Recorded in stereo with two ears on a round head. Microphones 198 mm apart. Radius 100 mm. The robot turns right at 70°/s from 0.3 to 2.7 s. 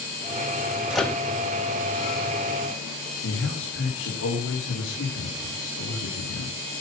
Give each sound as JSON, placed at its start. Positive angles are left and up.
{"t": 0.9, "sound": "a microwave", "side_deg": -5, "distance_m": 1.0}
{"t": 3.2, "sound": "a man speaking", "side_deg": 55, "distance_m": 3.5}